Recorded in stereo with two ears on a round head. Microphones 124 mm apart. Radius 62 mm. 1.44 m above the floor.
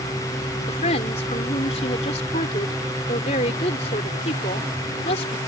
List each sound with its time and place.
0.7 s a woman speaking: 45° left (ahead or behind)